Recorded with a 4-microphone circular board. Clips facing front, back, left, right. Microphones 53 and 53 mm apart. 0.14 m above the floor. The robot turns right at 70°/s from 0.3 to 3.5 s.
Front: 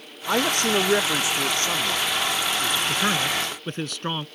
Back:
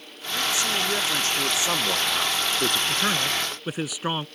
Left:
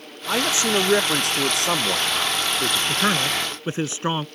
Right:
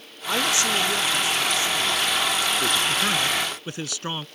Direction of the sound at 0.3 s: 10° left.